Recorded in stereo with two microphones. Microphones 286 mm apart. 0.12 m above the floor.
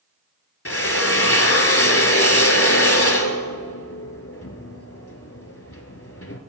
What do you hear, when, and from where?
0.7 s a drill: 50° left (ahead or behind), 0.7 m